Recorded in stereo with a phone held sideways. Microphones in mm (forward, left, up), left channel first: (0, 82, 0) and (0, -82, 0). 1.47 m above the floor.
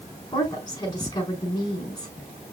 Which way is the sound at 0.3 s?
25° left (ahead or behind).